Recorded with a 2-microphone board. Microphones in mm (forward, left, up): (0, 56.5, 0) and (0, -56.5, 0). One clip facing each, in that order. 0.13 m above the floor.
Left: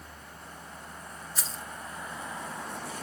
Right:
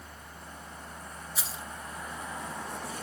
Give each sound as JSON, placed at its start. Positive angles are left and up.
{"t": 1.4, "sound": "keys jangling", "side_deg": -5, "distance_m": 1.0}